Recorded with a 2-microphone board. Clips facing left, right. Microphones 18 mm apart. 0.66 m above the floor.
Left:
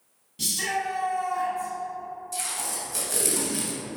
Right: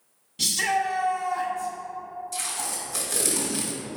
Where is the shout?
20° right (ahead or behind), 1.0 m.